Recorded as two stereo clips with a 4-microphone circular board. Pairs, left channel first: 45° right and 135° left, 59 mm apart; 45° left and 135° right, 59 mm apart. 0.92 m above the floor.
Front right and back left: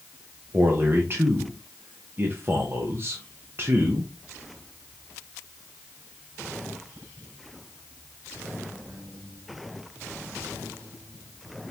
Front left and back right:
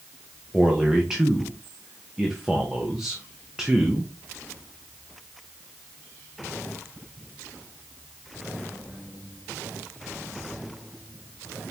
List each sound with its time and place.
0.5 s a man speaking: 150° left, 0.8 m